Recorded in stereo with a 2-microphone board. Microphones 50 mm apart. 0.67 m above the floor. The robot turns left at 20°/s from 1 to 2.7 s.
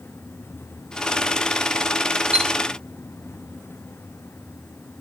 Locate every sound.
2.3 s a chime: 20° right (ahead or behind), 2 m